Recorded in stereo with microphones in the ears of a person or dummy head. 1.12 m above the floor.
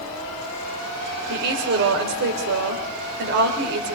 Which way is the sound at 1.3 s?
60° right (ahead or behind).